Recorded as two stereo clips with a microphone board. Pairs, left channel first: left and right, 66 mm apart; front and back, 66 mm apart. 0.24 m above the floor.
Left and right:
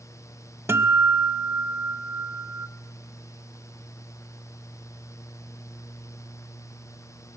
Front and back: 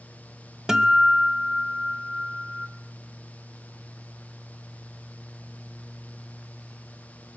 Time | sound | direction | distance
0.7 | a guitar | 105° right | 1.0 m